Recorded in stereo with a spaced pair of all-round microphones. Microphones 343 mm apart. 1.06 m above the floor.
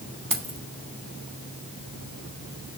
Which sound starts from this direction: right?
Keys jangling, at 0.3 s.